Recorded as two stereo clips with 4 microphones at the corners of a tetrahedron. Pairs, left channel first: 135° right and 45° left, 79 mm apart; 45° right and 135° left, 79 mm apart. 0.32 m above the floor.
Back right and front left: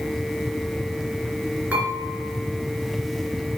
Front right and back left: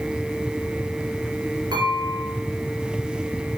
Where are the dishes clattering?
110° left, 3.5 m.